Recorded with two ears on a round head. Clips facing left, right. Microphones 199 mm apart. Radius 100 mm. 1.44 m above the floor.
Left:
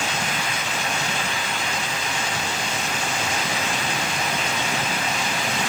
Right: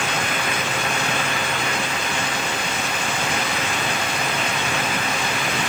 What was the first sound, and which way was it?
Only background noise.